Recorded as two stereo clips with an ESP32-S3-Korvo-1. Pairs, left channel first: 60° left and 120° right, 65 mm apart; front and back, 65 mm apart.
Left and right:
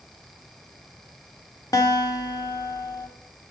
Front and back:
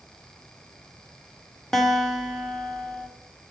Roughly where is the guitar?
Left.